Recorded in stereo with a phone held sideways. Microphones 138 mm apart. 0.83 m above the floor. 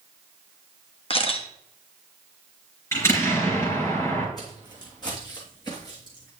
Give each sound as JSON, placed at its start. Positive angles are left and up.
{"t": 1.1, "sound": "a camera shutter", "side_deg": 45, "distance_m": 1.1}
{"t": 2.9, "sound": "an explosion", "side_deg": 20, "distance_m": 4.5}
{"t": 4.4, "sound": "footsteps", "side_deg": 30, "distance_m": 2.5}